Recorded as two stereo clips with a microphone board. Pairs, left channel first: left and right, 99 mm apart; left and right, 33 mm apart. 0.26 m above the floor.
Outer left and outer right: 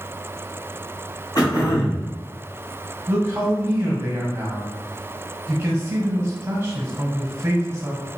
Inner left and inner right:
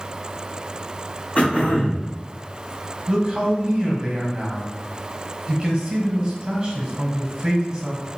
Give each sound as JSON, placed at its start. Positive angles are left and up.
{"t": 1.4, "sound": "throat clearing", "side_deg": 40, "distance_m": 1.6}
{"t": 3.1, "sound": "a man speaking", "side_deg": -15, "distance_m": 1.3}